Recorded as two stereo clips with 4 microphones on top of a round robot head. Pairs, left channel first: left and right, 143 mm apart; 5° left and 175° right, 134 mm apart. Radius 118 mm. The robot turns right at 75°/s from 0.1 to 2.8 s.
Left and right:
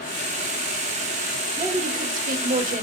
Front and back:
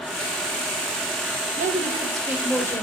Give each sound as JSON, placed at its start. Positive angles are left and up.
{"t": 1.6, "sound": "a woman speaking", "azimuth_deg": -155, "distance_m": 3.0}